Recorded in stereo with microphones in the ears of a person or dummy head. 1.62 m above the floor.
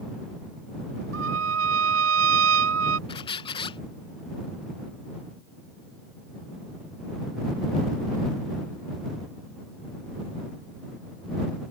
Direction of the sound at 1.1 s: 90° right.